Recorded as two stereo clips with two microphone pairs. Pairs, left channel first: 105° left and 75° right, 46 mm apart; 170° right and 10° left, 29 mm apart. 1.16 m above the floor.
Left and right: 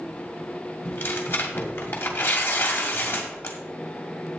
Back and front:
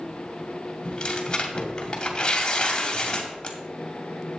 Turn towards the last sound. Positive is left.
turn(degrees=130)